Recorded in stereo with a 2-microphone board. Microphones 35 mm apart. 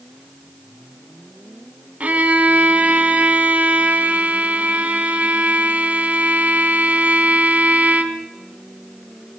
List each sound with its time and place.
2.0 s a violin: 45° right (ahead or behind), 2.5 m